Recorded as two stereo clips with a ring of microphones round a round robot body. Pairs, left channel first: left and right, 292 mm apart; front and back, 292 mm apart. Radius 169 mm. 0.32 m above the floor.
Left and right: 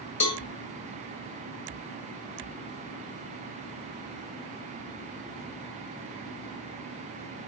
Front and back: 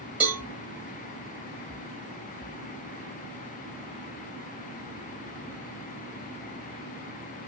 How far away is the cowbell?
About 1.2 m.